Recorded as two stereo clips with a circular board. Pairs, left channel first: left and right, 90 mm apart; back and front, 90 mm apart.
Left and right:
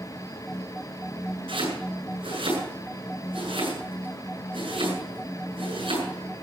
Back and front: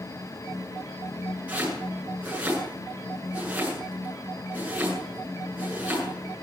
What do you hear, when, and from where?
1.5 s chopping: 75° right, 8 m